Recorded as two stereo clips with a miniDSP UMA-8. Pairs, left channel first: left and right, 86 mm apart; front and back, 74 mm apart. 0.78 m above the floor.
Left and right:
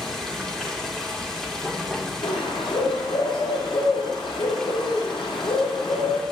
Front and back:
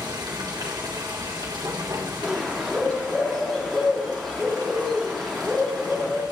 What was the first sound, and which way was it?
Running water, 175° left.